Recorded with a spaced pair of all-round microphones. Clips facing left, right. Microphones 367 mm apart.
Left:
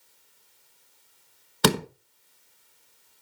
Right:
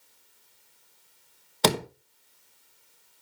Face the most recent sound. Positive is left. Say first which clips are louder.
# left 2 dB
turn(degrees=20)  # may be behind; listen again after turning